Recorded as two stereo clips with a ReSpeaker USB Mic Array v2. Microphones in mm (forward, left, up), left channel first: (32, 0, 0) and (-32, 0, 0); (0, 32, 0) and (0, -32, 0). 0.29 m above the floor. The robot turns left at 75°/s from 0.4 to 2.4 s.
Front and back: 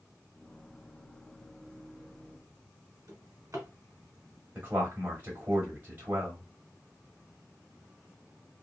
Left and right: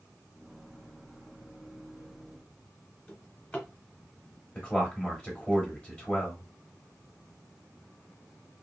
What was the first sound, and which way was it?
A drawer, 155° left.